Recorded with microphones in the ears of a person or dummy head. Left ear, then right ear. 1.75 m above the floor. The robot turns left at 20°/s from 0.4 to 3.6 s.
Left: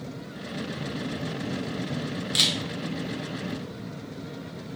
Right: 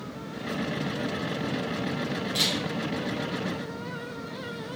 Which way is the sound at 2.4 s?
30° left (ahead or behind).